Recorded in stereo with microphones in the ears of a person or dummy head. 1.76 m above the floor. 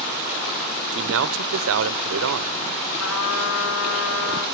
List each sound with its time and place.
0.9 s a man speaking: 75° right (ahead or behind), 1.4 m
3.0 s a trumpet: 75° left (ahead or behind), 7 m